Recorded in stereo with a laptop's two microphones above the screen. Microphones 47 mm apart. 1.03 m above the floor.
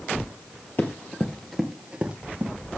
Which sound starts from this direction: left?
Running footsteps, at 0.8 s.